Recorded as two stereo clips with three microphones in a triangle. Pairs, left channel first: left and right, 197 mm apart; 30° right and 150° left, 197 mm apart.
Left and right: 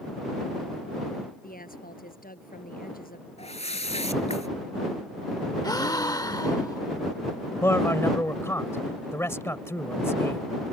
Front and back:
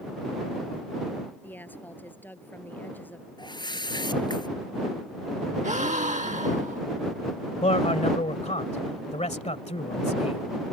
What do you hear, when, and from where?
1.4 s a woman speaking: 50° left
3.4 s a whoosh: 35° left
5.6 s a gasp: 150° left
7.6 s a man speaking: 15° left